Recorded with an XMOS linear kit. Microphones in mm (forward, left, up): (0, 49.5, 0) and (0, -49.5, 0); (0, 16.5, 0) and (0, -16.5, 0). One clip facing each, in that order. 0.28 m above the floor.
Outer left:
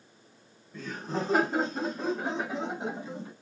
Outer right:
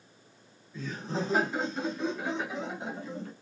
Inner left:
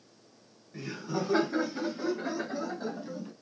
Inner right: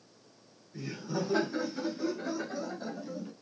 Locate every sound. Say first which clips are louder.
0.7 s laughter: outer left 1 dB, inner left 1 dB; 55° left (ahead or behind), 3 m; by 3.3 s 20° left (ahead or behind), 2 m